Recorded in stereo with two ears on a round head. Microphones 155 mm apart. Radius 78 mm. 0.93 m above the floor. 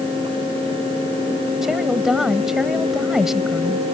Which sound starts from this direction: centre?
A woman speaking, at 1.6 s.